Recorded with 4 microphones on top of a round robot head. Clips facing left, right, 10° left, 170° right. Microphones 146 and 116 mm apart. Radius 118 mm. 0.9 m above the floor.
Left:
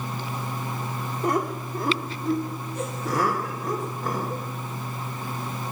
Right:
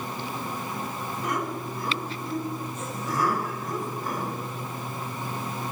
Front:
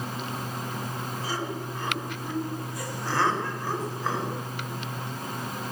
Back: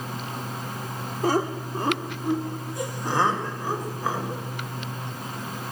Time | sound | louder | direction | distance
1.2 | laughter | left 6 dB, back 11 dB | 150° left | 2.5 m